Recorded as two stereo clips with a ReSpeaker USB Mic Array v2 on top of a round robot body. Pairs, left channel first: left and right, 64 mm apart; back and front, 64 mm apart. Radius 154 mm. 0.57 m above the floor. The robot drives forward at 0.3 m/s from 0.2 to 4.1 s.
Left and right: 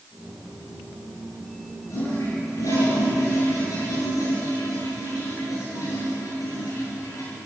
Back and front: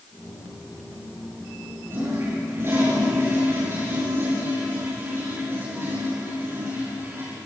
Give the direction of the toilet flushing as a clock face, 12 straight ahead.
10 o'clock.